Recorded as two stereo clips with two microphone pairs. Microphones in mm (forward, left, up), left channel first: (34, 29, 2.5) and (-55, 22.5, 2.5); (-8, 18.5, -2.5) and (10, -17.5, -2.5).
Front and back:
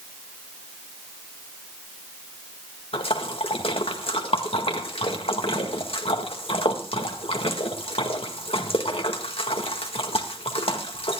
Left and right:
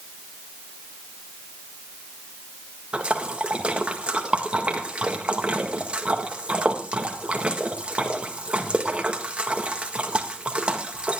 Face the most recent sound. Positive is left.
turn(degrees=0)